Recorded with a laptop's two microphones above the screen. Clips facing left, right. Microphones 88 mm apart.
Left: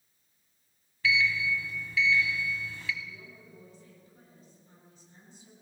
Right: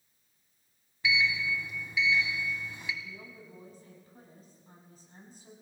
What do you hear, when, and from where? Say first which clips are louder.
1.0 s a sliding door: left 1 dB; 15° right (ahead or behind), 2 m
3.0 s a woman speaking: right 1 dB; 45° right (ahead or behind), 8 m